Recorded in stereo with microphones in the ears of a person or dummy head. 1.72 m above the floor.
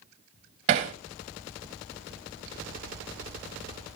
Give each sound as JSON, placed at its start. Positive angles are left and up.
{"t": 0.7, "sound": "hammering", "side_deg": -40, "distance_m": 1.3}